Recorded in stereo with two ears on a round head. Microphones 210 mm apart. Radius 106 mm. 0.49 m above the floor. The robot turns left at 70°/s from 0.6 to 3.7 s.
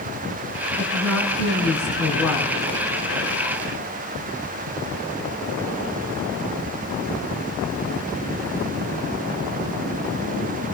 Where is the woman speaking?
165° right, 5.5 m; by 2.6 s 65° left, 5.5 m.